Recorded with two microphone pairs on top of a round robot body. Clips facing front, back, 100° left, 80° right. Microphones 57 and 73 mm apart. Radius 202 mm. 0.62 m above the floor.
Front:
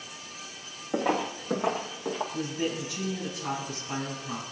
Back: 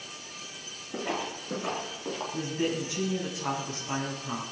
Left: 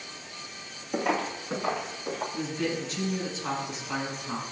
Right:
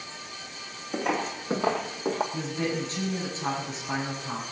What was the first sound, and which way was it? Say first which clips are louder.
Footsteps: front 5 dB, left 1 dB; 20° left.